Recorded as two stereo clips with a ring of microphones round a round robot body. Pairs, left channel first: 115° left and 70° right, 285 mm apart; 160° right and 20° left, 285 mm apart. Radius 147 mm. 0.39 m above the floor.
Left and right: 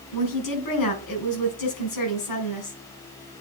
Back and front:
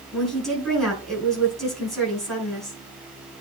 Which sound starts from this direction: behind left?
A woman speaking, at 0.1 s.